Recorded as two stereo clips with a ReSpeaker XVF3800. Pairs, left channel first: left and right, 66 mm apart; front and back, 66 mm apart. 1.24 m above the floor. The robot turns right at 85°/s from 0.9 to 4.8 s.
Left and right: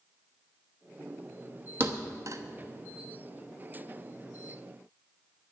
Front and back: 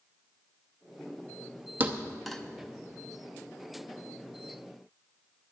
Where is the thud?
130° right, 0.8 m; by 2.4 s 80° right, 0.8 m.